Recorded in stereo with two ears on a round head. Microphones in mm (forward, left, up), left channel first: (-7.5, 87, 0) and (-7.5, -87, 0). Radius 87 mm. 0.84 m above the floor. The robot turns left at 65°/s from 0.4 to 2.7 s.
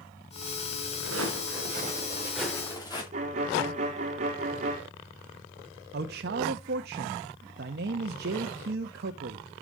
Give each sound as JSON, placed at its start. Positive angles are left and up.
{"t": 1.0, "sound": "footsteps", "side_deg": -80, "distance_m": 6.5}
{"t": 3.1, "sound": "a violin", "side_deg": -35, "distance_m": 2.5}
{"t": 5.9, "sound": "a man speaking", "side_deg": -55, "distance_m": 0.7}